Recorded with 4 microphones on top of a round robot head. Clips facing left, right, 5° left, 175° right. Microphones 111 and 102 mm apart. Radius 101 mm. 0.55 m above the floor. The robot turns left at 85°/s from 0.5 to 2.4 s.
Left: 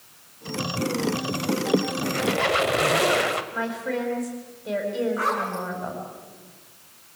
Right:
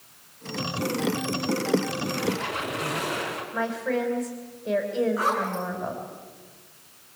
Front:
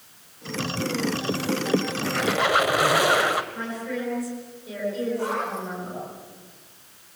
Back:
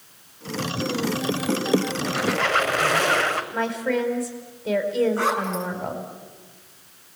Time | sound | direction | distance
2.0 | a squeak | 110° left | 1.6 m
3.5 | a woman speaking | straight behind | 4 m
5.2 | a zipper | 170° right | 5 m